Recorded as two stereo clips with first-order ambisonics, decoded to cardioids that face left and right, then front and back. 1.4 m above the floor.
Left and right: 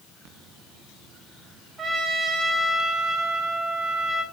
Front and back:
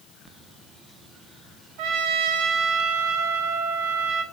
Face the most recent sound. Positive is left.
turn(degrees=-160)